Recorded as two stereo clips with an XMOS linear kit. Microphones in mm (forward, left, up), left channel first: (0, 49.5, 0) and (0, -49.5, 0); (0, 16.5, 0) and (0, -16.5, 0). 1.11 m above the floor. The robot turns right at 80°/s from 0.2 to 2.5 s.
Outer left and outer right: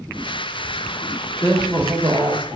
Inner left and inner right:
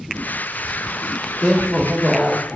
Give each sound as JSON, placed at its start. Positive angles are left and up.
{"t": 1.4, "sound": "a woman speaking", "azimuth_deg": 145, "distance_m": 1.6}